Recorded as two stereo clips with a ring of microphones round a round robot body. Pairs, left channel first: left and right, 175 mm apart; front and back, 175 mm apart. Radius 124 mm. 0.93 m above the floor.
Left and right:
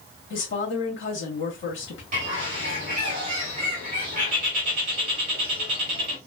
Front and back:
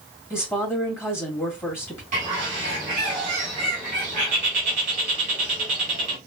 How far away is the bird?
About 1.0 m.